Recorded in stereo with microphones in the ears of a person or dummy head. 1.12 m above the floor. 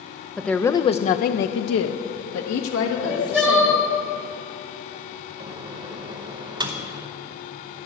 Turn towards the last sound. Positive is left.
turn(degrees=-30)  # may be behind; listen again after turning